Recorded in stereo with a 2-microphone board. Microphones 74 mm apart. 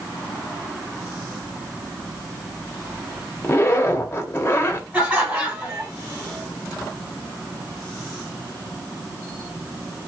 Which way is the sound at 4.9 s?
15° right (ahead or behind).